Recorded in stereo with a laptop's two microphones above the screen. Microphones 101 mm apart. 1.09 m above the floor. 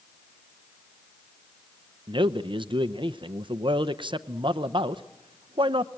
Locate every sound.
2.1 s a man speaking: 55° right (ahead or behind), 0.7 m